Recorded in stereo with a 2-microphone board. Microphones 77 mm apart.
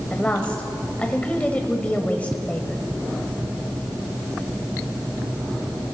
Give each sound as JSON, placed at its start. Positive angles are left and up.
{"t": 0.1, "sound": "a woman speaking", "side_deg": 20, "distance_m": 1.2}